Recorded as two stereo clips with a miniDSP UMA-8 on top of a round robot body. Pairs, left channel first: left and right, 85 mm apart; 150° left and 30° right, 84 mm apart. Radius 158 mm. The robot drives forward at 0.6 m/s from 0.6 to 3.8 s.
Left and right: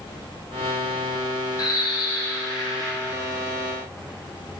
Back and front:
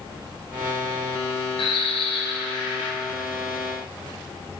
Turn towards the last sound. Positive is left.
turn(degrees=145)